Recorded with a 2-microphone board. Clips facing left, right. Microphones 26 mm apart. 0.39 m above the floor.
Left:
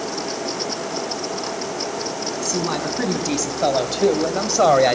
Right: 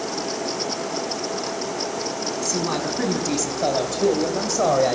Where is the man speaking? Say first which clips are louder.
Left 2 dB; 10° left (ahead or behind), 3 m; by 5.0 s 60° left (ahead or behind), 1.9 m.